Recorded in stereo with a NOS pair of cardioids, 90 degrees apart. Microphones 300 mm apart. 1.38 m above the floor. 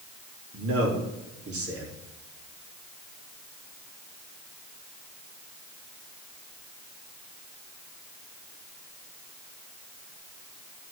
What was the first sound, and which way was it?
A man speaking, 50° right.